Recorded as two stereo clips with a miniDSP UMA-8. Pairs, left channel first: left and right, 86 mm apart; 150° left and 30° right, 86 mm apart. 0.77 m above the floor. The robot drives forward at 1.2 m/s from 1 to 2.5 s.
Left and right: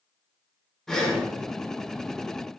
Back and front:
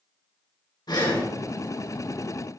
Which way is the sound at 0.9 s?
175° left.